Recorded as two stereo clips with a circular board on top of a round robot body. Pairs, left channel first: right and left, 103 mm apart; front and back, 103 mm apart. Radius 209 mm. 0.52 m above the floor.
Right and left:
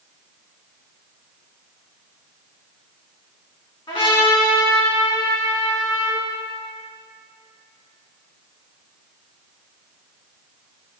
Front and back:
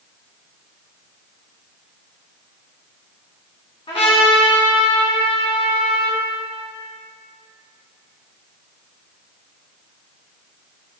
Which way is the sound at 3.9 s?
40° right.